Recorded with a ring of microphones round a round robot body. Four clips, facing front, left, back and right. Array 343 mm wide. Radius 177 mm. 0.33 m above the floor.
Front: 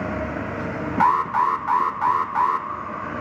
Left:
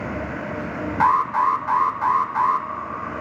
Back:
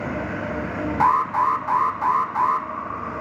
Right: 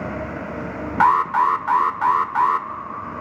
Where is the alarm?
70° right, 1.2 m.